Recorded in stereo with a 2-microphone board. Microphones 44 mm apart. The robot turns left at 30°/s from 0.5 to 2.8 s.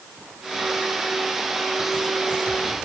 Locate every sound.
Only background noise.